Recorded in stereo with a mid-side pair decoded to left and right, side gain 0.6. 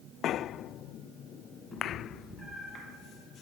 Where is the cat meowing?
20° left, 8 m; by 2.9 s 25° left, 7.5 m.